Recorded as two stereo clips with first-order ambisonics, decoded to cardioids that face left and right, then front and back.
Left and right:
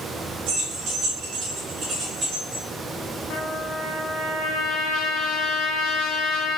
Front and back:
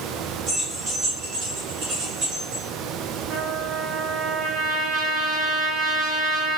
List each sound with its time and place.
0.5 s keys jangling: 110° right, 1.1 m; by 2.6 s 140° right, 3 m
3.3 s a trumpet: 135° left, 0.9 m